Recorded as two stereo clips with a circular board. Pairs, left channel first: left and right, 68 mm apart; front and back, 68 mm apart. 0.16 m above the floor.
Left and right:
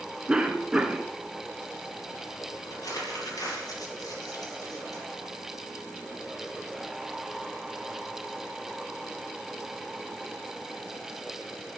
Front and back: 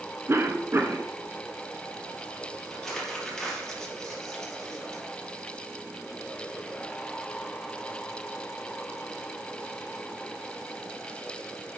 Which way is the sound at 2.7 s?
85° left.